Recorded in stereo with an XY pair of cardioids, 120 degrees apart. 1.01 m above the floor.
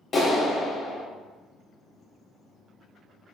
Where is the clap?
35° left, 2.5 m.